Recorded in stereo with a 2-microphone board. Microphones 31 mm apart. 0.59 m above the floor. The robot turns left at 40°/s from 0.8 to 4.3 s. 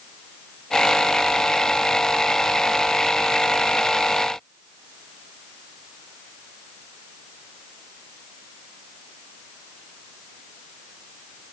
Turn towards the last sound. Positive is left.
No sound to turn to.